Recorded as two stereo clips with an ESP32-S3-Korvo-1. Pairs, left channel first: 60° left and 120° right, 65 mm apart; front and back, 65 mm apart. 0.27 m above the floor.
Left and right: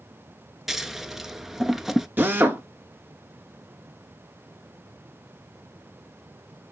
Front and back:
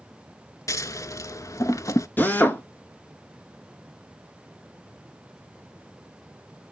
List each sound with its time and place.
0.7 s scissors: 35° right, 0.6 m
2.2 s a drill: 60° right, 1.8 m